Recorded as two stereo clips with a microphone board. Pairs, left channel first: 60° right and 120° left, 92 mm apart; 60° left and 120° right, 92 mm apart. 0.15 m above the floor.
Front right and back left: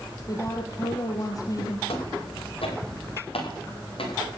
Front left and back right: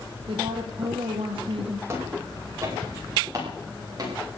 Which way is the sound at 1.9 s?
60° right.